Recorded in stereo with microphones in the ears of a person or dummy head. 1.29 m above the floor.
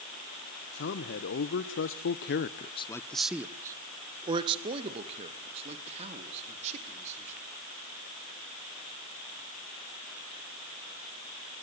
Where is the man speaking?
55° left (ahead or behind), 1.4 m; by 7.4 s 40° right (ahead or behind), 3.5 m.